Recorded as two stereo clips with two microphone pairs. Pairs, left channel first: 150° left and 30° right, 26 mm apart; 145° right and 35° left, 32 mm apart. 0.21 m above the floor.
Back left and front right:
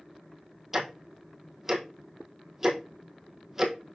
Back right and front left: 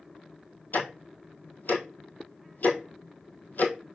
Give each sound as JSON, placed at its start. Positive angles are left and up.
{"t": 0.7, "sound": "ticking", "azimuth_deg": -110, "distance_m": 1.1}